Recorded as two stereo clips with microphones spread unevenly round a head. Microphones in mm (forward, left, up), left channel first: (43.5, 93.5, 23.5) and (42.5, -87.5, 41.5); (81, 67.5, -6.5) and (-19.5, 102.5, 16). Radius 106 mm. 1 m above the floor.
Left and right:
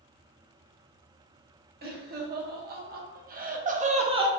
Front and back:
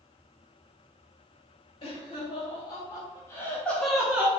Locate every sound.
1.8 s laughter: 60° right, 1.7 m; by 4.3 s 120° right, 0.7 m